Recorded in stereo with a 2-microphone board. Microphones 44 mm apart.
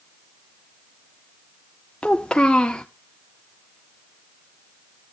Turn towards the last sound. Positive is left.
turn(degrees=20)  # may be behind; listen again after turning